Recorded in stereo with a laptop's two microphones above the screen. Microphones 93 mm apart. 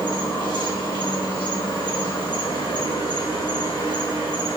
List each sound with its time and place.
0.0 s an insect: 65° left (ahead or behind), 1.6 m